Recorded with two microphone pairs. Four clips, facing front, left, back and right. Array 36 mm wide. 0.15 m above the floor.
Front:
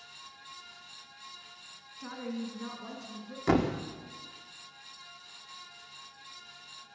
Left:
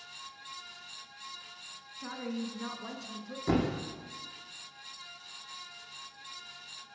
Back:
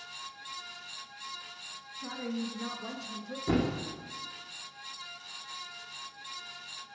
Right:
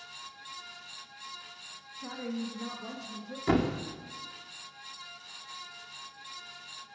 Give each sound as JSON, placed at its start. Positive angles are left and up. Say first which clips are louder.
{"t": 2.0, "sound": "a woman speaking", "louder": "right 1 dB, back 2 dB", "azimuth_deg": 70, "distance_m": 1.5}
{"t": 3.5, "sound": "a thud", "louder": "right 2 dB, front 3 dB", "azimuth_deg": -20, "distance_m": 1.4}